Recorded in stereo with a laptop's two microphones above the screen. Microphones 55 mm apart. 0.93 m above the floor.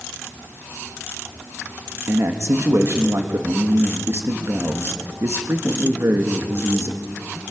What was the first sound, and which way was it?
A man speaking, 55° right (ahead or behind).